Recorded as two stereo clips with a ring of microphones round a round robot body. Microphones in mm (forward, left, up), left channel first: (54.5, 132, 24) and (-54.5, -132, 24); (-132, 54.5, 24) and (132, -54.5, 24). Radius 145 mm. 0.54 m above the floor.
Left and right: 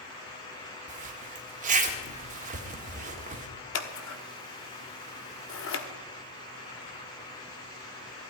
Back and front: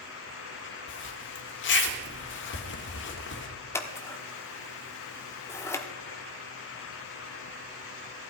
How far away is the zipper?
About 1.6 m.